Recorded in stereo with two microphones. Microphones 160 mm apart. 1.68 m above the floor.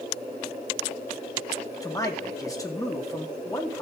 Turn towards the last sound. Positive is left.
turn(degrees=20)  # may be behind; listen again after turning